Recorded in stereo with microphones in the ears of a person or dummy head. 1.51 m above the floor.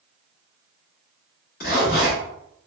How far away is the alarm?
I don't hear an alarm.